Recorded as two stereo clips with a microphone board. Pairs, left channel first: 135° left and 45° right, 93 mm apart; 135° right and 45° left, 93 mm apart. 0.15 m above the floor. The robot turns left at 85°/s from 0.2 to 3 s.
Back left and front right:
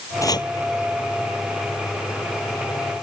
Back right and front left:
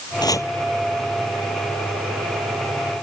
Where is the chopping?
175° right; by 0.5 s 160° left.